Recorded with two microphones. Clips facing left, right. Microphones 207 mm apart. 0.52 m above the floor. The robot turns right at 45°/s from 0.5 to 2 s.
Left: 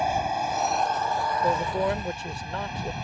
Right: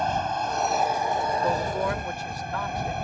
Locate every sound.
0.0 s an aircraft: 170° left; by 3.0 s 120° right
1.4 s a man speaking: 10° left (ahead or behind); by 2.9 s 30° left (ahead or behind)